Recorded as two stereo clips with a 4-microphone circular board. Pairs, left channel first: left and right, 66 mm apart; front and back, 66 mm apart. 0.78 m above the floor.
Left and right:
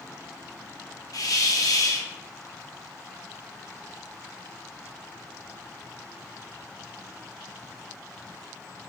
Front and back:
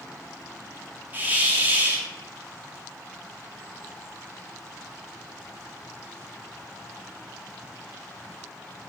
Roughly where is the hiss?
Behind left.